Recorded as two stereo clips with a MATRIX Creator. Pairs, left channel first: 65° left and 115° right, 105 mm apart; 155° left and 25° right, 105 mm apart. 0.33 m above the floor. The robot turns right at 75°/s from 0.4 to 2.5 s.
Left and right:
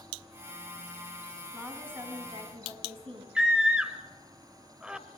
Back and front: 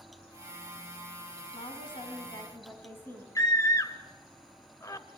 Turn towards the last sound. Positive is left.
turn(degrees=170)